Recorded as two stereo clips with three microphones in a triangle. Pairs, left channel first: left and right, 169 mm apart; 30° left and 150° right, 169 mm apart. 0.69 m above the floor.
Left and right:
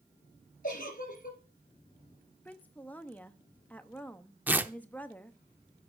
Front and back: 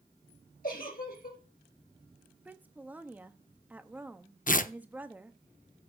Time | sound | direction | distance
0.6 | a giggle | 60° left | 2.5 m
2.5 | a woman speaking | 150° left | 0.6 m
4.5 | tearing paper | 10° right | 0.5 m